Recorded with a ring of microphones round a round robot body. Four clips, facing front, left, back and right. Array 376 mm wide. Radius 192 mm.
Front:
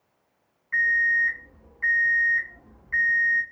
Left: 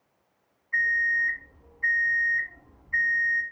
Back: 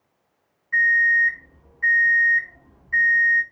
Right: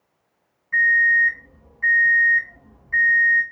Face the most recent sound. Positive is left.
turn(degrees=-75)